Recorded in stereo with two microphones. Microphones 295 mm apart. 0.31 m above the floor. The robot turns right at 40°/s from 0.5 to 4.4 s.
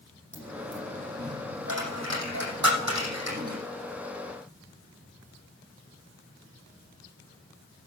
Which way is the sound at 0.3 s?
5° right (ahead or behind).